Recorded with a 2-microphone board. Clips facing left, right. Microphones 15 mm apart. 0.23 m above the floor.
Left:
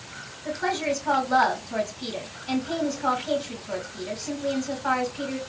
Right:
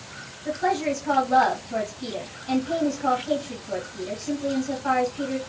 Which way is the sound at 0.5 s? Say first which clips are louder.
Right 2 dB; 25° left (ahead or behind).